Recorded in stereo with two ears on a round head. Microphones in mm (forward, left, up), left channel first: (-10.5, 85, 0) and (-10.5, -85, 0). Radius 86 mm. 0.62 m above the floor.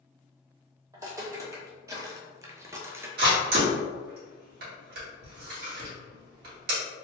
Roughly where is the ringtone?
I don't hear a ringtone.